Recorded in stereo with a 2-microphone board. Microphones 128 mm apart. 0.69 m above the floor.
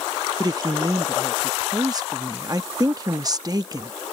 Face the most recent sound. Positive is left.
turn(degrees=-30)  # may be behind; listen again after turning